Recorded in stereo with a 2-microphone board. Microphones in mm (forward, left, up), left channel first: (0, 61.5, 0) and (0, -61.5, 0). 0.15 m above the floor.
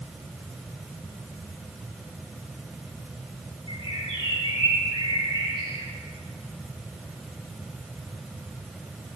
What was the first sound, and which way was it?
A bird, 55° right (ahead or behind).